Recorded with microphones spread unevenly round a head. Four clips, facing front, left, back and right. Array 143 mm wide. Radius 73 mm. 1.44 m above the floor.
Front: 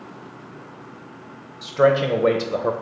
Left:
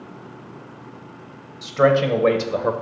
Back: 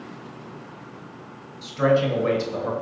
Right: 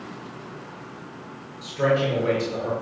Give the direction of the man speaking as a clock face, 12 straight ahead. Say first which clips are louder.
Left 5 dB, front 3 dB; 11 o'clock.